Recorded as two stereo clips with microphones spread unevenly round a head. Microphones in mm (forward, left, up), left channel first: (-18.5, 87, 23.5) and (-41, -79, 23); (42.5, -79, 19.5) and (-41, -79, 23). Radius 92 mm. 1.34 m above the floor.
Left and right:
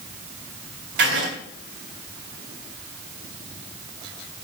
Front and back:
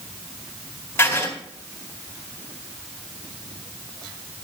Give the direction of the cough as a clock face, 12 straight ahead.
I don't hear a cough.